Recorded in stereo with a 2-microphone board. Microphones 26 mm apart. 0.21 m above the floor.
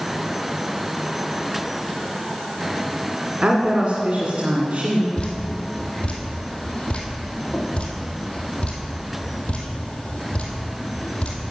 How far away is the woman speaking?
About 1.7 m.